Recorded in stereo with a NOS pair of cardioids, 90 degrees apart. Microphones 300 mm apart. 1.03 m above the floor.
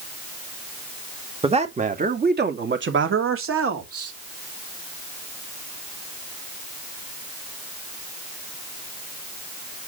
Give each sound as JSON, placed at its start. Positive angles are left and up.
{"t": 1.4, "sound": "a man speaking", "azimuth_deg": -20, "distance_m": 2.0}